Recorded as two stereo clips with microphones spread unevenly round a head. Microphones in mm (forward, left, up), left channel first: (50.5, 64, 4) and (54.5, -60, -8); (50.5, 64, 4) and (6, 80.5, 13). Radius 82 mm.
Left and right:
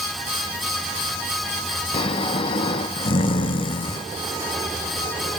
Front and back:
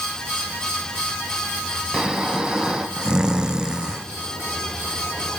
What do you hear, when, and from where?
1.9 s snoring: 110° left, 0.9 m